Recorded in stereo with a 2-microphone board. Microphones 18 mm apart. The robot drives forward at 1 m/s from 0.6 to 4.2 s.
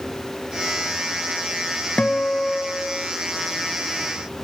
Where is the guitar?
75° left (ahead or behind), 0.6 m; by 3.2 s 25° left (ahead or behind), 1.2 m.